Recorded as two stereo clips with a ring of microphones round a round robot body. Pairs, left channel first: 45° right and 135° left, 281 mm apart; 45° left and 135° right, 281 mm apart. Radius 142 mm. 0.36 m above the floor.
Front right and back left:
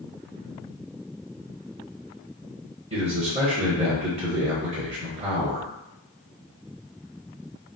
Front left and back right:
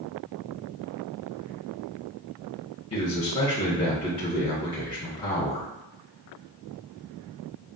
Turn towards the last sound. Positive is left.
turn(degrees=95)